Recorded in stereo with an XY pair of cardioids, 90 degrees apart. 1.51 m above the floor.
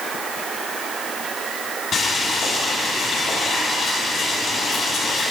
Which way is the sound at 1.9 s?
65° left.